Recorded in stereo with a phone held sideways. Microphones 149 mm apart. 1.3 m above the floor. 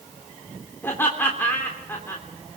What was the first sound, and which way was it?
Laughter, 15° left (ahead or behind).